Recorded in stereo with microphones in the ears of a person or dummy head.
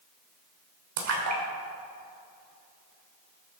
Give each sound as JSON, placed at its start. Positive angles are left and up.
{"t": 1.0, "sound": "a splash", "side_deg": -80, "distance_m": 2.5}